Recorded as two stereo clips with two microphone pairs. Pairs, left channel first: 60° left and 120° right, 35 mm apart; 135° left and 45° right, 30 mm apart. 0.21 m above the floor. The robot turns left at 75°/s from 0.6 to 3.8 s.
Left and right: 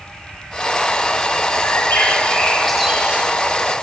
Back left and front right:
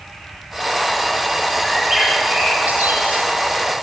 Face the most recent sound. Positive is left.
turn(degrees=-105)